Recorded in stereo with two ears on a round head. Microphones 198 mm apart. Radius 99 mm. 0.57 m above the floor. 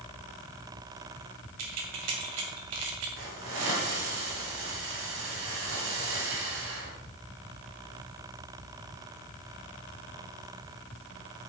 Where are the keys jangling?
75° right (ahead or behind), 2 m.